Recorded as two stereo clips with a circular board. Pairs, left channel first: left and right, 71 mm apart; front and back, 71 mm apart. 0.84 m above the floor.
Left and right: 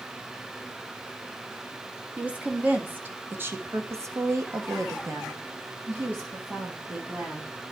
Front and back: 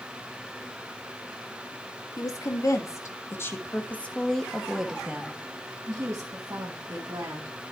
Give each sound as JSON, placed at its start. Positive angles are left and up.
{"t": 2.2, "sound": "a woman speaking", "azimuth_deg": -20, "distance_m": 1.9}